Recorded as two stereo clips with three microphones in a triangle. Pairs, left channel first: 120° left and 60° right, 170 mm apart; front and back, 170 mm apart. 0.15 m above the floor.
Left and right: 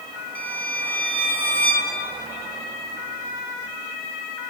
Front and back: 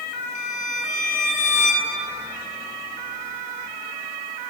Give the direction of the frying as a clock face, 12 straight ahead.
No frying in this recording.